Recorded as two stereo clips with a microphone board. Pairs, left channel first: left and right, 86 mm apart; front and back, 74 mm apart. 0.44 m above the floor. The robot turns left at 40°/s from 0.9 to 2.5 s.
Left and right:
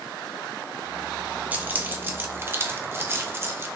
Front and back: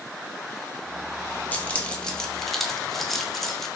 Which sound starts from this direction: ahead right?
Keys jangling, at 1.5 s.